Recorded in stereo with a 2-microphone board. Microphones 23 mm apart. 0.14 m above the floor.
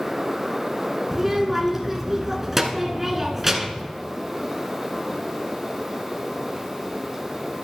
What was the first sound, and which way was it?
A child speaking, 15° right (ahead or behind).